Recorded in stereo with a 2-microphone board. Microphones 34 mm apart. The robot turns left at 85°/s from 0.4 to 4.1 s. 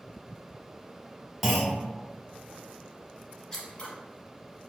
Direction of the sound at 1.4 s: Centre (ahead or behind).